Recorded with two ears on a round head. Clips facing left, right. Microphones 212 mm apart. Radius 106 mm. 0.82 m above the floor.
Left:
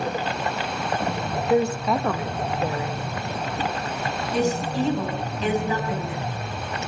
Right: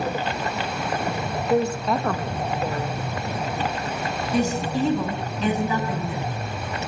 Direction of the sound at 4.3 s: 80° right.